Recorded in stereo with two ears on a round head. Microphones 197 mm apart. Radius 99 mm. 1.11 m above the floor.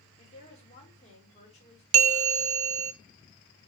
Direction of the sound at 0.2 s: 30° left (ahead or behind).